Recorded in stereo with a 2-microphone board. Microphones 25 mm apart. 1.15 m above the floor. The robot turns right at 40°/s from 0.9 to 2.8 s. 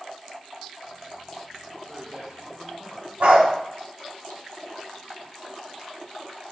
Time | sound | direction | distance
1.9 | a man speaking | 160° right | 4.5 m
3.2 | a dog barking | 75° right (ahead or behind) | 3 m